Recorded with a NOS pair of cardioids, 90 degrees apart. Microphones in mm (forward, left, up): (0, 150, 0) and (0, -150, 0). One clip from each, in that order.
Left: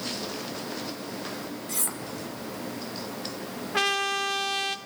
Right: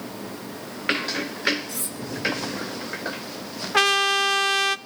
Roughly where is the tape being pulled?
No tape being pulled in this recording.